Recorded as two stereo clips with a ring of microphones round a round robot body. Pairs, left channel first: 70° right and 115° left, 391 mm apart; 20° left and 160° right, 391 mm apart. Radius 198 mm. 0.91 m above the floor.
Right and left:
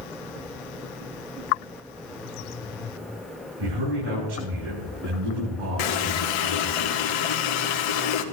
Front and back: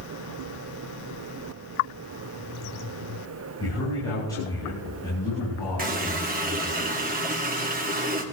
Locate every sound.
3.6 s a man speaking: 105° left, 8.5 m
5.8 s a running tap: 90° right, 1.5 m